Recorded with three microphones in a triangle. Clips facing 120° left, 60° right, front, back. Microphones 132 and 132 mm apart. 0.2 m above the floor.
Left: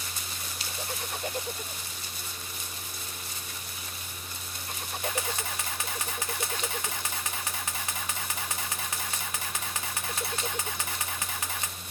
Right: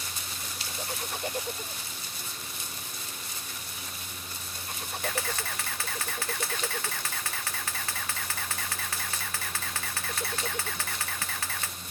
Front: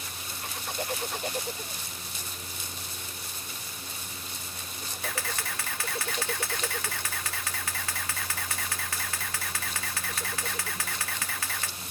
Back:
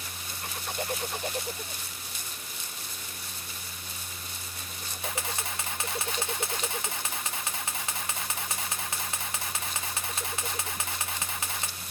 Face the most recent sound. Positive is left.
turn(degrees=155)